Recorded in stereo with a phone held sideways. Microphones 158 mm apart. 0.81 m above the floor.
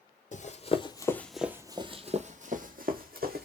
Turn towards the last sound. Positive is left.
turn(degrees=-65)  # may be behind; listen again after turning